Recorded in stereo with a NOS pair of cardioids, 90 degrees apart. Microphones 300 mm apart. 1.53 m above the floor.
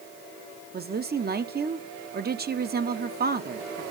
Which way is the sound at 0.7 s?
35° right.